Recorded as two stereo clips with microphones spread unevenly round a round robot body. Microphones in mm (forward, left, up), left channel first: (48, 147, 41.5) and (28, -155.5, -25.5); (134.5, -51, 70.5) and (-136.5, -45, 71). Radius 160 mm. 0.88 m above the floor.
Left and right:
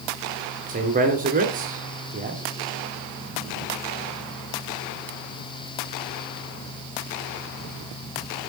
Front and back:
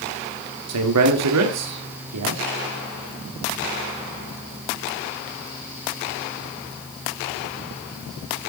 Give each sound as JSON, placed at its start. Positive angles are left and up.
{"t": 0.7, "sound": "a man speaking", "azimuth_deg": -160, "distance_m": 1.9}